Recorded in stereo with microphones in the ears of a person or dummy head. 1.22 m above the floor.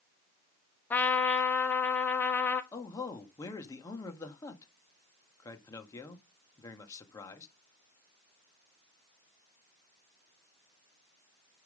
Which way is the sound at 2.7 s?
25° left (ahead or behind).